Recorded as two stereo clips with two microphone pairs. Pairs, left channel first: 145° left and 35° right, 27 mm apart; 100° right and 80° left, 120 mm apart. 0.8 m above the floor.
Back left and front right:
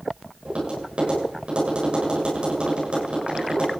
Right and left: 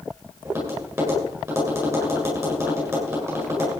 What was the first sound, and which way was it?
Tapping, 10° left.